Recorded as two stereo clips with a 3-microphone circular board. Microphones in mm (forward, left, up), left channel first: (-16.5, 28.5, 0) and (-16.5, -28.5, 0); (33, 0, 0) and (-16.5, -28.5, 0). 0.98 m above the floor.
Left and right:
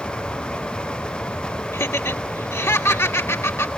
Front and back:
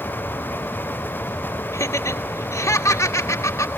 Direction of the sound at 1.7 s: 55° left.